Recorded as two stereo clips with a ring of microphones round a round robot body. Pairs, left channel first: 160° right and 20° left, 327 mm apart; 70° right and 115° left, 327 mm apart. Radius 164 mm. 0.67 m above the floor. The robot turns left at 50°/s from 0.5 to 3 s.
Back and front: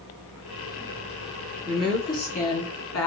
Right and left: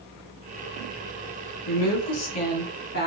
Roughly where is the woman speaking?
Ahead right.